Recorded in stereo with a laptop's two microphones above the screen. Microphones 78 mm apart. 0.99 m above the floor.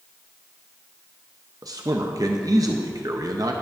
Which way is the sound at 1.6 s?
50° right (ahead or behind).